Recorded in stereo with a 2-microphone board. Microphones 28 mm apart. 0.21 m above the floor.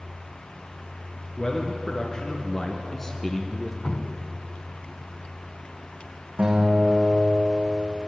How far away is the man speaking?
About 3.5 m.